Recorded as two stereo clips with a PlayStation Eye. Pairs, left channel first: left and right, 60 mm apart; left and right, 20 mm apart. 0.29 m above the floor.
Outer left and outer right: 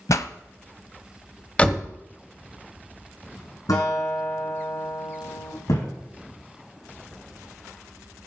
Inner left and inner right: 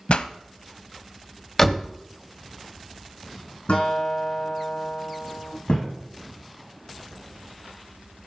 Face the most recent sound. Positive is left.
turn(degrees=80)